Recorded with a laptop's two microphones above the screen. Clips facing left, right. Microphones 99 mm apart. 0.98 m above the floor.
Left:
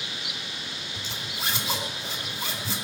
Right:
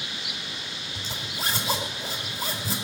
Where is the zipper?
40° right (ahead or behind), 4 m.